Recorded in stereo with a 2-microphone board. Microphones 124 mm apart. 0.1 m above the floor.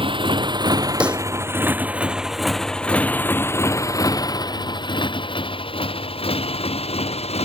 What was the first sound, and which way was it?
A motorcycle, 45° right (ahead or behind).